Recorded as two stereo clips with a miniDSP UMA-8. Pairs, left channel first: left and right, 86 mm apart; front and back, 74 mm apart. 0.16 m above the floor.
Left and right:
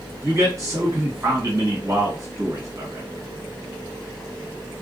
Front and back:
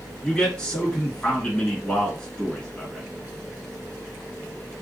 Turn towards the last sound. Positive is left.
turn(degrees=-70)